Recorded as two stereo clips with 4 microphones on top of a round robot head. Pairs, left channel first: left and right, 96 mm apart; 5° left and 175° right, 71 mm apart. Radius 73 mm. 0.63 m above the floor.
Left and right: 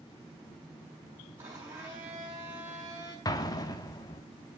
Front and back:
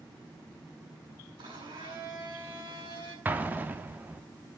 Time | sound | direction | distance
1.4 | a blender | 160° right | 7.5 m
3.2 | an explosion | 130° left | 1.6 m